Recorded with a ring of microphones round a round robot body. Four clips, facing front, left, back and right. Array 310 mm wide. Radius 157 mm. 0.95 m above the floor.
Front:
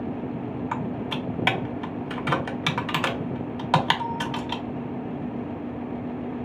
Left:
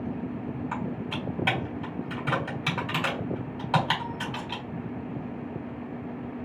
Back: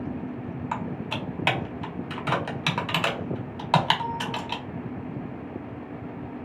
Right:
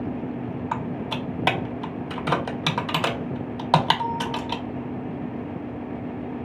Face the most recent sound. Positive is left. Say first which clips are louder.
# right 4 dB, even
turn(degrees=-70)